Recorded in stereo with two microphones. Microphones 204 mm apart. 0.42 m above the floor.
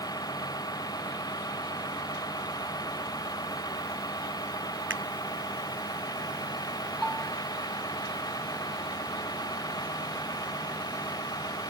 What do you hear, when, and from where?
0.0 s a vehicle: 20° left (ahead or behind)
4.9 s a finger snap: 75° right (ahead or behind)
7.0 s a bell: centre (ahead or behind)